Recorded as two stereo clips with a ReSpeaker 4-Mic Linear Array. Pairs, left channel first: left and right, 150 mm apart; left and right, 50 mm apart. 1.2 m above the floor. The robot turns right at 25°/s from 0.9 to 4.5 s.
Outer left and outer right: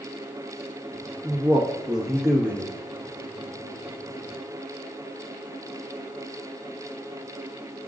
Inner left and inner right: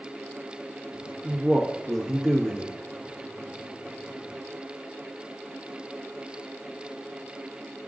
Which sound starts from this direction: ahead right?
A man speaking, at 1.2 s.